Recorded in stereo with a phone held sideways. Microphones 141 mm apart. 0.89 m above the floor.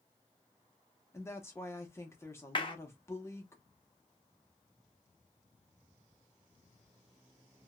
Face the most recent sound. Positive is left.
turn(degrees=35)  # may be behind; listen again after turning